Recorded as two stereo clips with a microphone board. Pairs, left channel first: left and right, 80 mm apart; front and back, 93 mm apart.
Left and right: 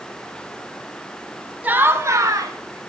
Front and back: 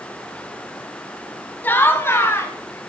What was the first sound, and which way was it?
Laughter, 45° right.